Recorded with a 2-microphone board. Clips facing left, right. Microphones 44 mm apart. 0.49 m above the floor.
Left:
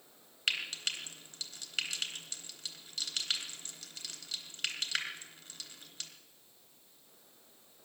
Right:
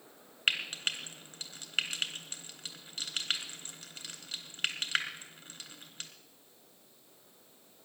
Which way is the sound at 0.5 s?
35° right (ahead or behind).